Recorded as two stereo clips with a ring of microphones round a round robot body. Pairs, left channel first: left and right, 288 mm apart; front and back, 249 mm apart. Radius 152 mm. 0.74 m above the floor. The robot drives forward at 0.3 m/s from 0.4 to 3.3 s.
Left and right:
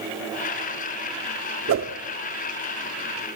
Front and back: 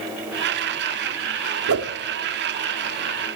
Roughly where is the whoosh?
Behind right.